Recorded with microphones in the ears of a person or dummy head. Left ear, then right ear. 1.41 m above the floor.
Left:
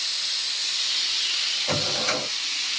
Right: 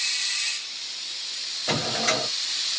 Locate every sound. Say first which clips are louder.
1.7 s a drawer: even; 45° right (ahead or behind), 1.3 m